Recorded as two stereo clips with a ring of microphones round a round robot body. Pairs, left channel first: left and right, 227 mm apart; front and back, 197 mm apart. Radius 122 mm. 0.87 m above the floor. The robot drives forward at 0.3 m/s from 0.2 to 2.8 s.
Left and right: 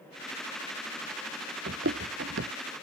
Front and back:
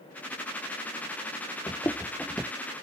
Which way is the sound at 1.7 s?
70° right.